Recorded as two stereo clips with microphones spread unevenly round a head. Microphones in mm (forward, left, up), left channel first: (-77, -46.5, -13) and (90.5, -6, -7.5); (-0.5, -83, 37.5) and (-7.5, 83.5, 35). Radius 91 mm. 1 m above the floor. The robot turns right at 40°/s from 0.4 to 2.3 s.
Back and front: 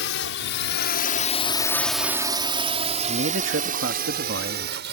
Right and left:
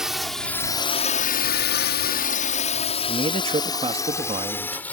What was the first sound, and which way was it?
A drone, straight behind.